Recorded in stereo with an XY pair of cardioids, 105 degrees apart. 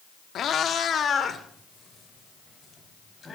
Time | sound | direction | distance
0.3 | a cat meowing | 60° left | 1.1 m